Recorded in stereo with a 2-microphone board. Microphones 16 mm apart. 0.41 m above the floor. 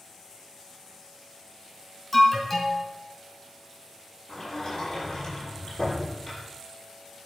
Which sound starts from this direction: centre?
An alarm, at 2.1 s.